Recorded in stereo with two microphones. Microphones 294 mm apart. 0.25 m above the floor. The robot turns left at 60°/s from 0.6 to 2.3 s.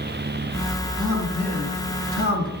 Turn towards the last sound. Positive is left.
turn(degrees=120)